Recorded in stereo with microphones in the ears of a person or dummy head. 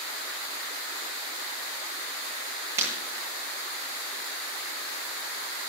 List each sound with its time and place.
2.8 s breaking glass: 20° right (ahead or behind), 9 m